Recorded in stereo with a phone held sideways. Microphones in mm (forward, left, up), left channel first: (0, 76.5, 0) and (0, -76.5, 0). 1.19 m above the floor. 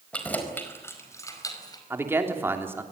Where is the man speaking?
15° right (ahead or behind), 3 m.